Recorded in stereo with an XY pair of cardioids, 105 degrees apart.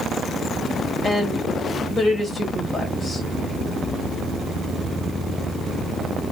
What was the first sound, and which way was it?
A woman speaking, 25° left.